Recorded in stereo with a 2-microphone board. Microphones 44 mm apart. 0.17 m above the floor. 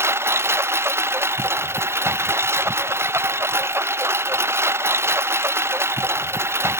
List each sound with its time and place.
0.0 s a lawn mower: 70° right (ahead or behind)